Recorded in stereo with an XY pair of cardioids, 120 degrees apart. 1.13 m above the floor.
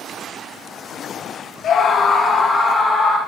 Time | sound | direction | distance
1.6 | a scream | 55° left | 0.9 m